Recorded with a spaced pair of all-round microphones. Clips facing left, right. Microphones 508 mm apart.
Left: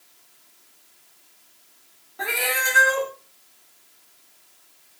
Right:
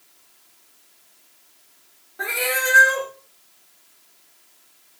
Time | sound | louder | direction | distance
2.2 | a cat meowing | right 3 dB | 15° left (ahead or behind) | 1.1 m